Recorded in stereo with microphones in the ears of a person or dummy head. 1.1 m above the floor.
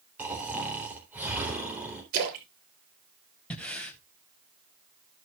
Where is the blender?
I don't hear a blender.